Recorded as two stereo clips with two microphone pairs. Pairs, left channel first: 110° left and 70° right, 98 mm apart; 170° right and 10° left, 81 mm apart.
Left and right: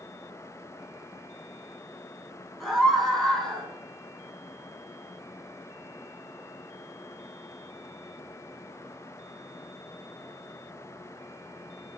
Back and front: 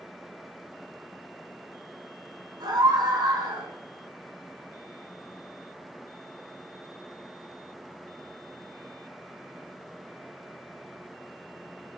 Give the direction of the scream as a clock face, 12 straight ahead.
11 o'clock.